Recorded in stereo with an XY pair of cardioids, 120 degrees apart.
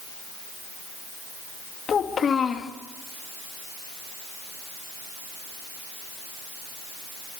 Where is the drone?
No drone in this recording.